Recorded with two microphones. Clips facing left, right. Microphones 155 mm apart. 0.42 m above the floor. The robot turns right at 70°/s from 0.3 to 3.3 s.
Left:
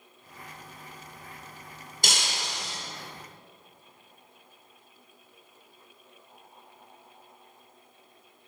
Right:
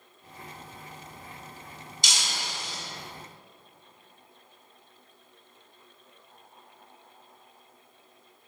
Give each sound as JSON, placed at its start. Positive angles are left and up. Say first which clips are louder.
{"t": 2.0, "sound": "breaking glass", "louder": "left 3 dB", "azimuth_deg": 55, "distance_m": 2.5}